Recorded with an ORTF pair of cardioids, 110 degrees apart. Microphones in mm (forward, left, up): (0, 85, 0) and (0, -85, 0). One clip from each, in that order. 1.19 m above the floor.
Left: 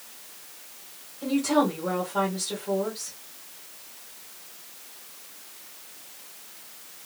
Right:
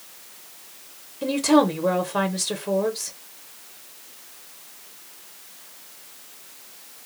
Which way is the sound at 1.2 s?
50° right.